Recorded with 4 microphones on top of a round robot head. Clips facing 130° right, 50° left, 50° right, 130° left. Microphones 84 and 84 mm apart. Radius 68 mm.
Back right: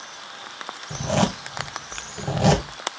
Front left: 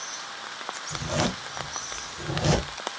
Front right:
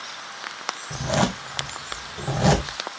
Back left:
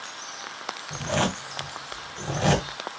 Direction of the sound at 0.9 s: 120° right.